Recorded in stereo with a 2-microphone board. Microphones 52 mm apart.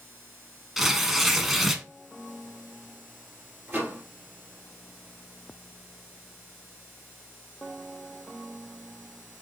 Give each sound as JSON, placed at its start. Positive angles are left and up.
{"t": 0.8, "sound": "tearing paper", "side_deg": -5, "distance_m": 0.7}
{"t": 3.7, "sound": "a microwave", "side_deg": -35, "distance_m": 2.0}